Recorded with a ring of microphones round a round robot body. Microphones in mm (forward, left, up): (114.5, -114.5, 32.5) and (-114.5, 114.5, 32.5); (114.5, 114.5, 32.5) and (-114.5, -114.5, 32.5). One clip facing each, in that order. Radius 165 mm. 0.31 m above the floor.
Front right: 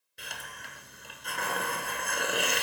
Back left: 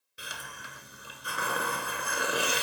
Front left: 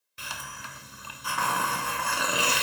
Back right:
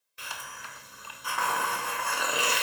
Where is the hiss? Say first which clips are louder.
Back left 1 dB, front left 2 dB; 50° left, 1.1 m.